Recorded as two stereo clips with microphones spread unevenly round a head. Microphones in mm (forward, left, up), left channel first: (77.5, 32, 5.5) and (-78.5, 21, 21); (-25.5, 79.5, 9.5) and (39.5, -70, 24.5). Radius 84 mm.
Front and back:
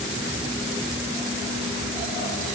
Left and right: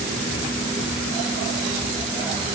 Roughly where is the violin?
No violin in this recording.